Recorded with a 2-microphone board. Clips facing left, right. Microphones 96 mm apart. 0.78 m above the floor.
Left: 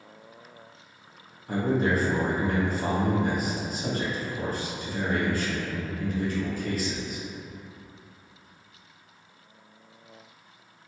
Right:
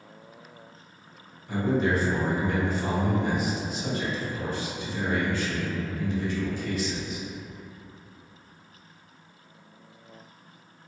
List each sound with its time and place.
1.5 s a man speaking: 45° left (ahead or behind), 0.7 m